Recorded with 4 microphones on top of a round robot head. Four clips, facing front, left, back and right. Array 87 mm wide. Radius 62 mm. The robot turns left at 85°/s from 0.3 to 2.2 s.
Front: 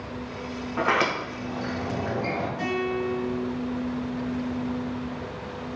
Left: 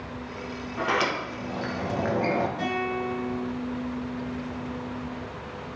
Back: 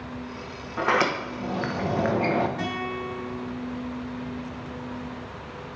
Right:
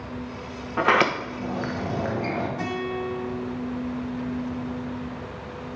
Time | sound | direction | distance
0.8 | a sliding door | 80° right | 1.2 m
2.6 | a guitar | 150° right | 4 m